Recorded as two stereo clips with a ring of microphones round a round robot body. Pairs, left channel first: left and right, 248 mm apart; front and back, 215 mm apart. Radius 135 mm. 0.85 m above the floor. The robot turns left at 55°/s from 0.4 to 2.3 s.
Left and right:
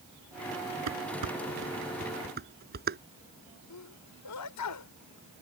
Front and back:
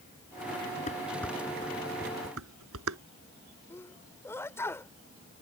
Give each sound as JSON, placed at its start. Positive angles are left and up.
{"t": 0.9, "sound": "dishes clattering", "azimuth_deg": -65}
{"t": 3.7, "sound": "a sneeze", "azimuth_deg": 80}